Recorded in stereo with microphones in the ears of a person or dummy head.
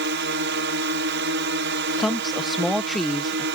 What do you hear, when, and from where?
0.0 s a drone: 60° right (ahead or behind)
2.0 s a woman speaking: centre (ahead or behind)